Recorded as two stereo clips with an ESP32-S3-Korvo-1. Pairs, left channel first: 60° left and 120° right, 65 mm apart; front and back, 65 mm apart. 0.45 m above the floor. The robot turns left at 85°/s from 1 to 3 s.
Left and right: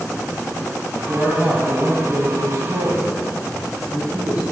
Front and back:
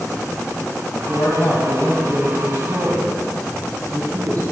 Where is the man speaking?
15° right, 2.5 m; by 4.4 s 175° left, 2.5 m.